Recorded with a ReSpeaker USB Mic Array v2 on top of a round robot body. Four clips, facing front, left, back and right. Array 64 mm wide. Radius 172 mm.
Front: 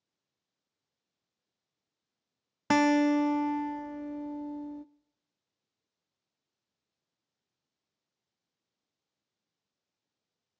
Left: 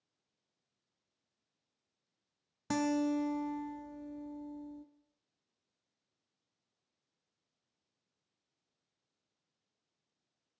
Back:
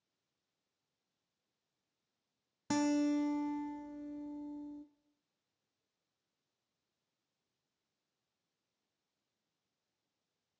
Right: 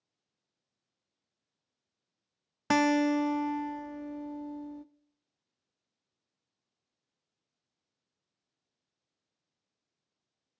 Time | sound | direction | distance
2.7 | a guitar | 40° right | 0.6 m